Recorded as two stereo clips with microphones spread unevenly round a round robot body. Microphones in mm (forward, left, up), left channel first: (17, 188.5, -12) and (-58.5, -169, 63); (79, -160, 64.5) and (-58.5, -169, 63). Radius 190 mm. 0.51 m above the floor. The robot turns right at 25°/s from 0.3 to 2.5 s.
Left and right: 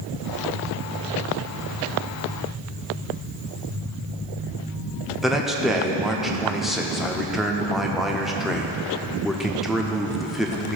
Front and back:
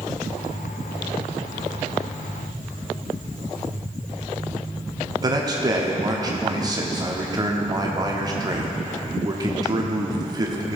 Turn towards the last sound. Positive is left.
turn(degrees=155)